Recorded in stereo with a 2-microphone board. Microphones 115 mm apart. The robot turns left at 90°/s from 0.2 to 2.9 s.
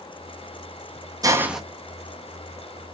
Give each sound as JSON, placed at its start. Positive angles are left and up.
{"t": 1.2, "sound": "a hiss", "azimuth_deg": -145, "distance_m": 0.5}